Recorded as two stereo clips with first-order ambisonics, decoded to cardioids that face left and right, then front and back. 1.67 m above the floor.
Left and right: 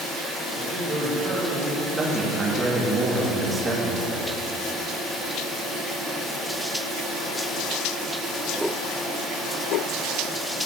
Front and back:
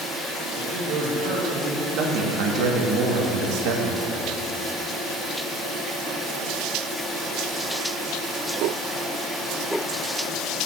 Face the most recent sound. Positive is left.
turn(degrees=-165)